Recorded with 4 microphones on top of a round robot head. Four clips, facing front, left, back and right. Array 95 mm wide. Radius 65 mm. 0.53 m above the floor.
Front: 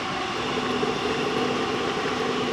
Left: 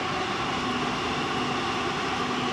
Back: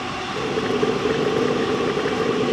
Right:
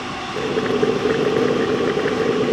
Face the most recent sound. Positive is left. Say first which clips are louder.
# right 9 dB, back 6 dB
turn(degrees=-110)